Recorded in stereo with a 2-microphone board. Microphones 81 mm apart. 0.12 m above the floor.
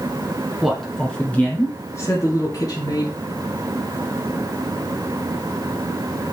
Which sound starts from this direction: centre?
A man speaking, at 0.6 s.